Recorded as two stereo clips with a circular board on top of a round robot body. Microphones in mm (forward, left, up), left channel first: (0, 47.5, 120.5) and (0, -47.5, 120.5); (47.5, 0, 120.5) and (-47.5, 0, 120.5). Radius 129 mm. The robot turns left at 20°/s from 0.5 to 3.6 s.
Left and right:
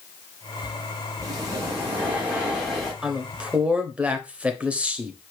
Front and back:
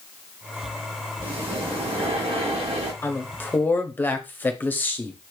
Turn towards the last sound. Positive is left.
turn(degrees=-35)